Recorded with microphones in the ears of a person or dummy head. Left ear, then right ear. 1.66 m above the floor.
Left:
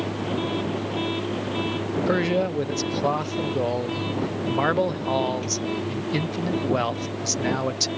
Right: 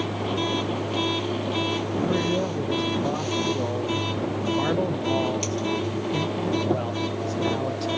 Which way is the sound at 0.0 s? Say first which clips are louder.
Right 1 dB; 70° right (ahead or behind).